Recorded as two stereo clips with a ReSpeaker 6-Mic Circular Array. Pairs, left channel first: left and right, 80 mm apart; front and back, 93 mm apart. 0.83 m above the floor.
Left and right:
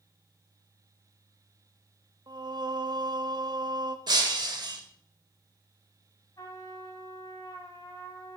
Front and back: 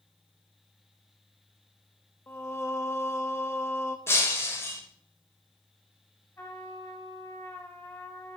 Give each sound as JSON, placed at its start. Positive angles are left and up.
{"t": 2.3, "sound": "singing", "azimuth_deg": -65, "distance_m": 0.6}
{"t": 4.1, "sound": "breaking glass", "azimuth_deg": -60, "distance_m": 1.3}
{"t": 6.4, "sound": "a trumpet", "azimuth_deg": 60, "distance_m": 1.3}